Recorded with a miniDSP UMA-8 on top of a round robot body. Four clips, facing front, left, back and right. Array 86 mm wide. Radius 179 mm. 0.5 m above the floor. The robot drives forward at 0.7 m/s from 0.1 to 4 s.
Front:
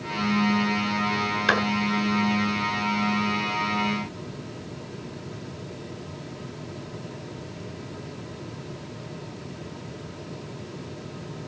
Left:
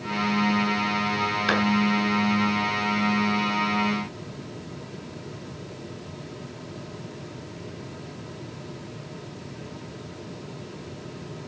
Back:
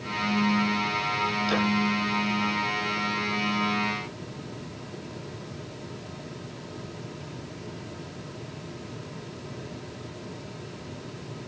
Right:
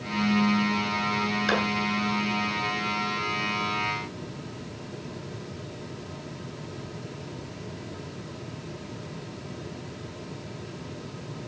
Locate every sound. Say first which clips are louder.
1.5 s a clap: left 1 dB, front 6 dB; 25° left, 6 m